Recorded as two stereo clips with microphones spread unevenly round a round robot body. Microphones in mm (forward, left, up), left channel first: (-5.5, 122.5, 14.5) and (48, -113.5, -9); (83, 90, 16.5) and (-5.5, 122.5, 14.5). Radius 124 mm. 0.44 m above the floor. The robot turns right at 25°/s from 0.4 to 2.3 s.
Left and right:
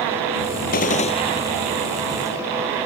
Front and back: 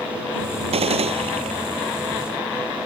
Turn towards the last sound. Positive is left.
turn(degrees=-160)